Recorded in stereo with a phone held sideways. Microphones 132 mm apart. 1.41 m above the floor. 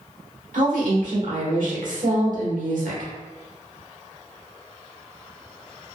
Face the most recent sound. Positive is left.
turn(degrees=-85)